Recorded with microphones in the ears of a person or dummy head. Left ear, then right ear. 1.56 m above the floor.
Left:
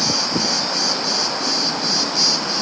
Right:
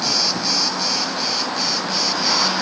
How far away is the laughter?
I don't hear laughter.